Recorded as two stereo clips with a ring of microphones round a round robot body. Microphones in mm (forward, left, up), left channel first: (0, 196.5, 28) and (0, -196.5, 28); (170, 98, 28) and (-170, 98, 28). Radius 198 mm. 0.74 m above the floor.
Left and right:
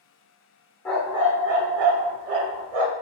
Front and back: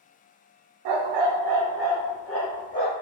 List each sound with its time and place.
0.8 s a dog barking: 175° left, 0.7 m; by 2.9 s 70° right, 1.0 m